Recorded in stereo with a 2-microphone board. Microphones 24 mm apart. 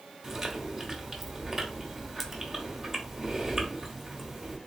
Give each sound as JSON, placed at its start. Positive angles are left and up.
{"t": 0.2, "sound": "chewing", "side_deg": -10, "distance_m": 1.3}